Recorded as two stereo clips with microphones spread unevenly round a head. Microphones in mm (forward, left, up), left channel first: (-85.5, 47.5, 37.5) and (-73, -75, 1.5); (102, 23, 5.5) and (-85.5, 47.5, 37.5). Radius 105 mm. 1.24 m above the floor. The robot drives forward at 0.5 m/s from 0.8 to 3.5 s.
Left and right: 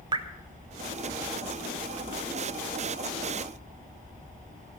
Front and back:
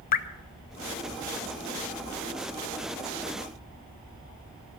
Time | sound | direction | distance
0.1 | dripping | 40° right | 0.5 m